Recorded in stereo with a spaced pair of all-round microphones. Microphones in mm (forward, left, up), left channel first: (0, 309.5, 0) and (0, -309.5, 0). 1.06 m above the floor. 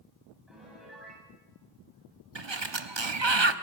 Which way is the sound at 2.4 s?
45° right (ahead or behind).